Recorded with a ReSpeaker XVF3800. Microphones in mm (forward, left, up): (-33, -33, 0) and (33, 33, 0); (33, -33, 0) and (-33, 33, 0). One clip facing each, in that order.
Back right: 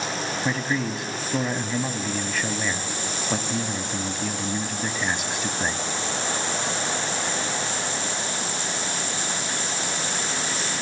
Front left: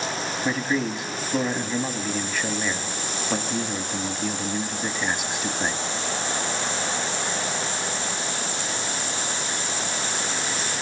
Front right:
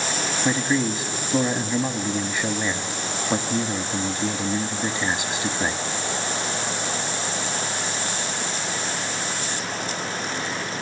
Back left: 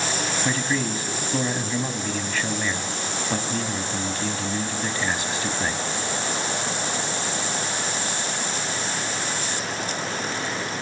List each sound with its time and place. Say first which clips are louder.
0.5 s a man speaking: front left 2 dB, front right 5 dB; 40° right, 1.0 m